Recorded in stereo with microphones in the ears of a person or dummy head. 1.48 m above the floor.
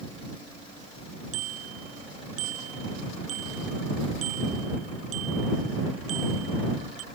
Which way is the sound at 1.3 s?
45° right (ahead or behind).